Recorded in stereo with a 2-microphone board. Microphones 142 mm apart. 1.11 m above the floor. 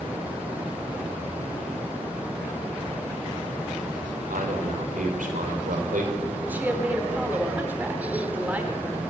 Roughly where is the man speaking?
Right.